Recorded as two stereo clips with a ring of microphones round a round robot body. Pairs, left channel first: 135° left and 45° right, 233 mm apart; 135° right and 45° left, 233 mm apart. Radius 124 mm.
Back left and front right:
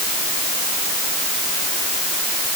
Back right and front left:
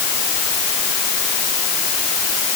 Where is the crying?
No crying in this recording.